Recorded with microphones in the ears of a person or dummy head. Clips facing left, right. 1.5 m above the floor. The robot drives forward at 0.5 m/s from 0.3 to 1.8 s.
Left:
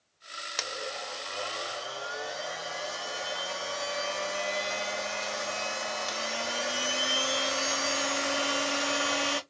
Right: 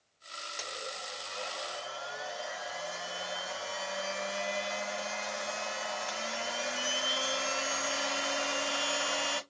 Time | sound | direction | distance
0.6 | a blender | 80° left | 0.7 m